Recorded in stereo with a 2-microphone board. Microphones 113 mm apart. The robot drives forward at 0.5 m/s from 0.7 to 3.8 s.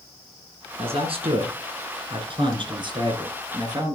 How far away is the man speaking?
About 2 m.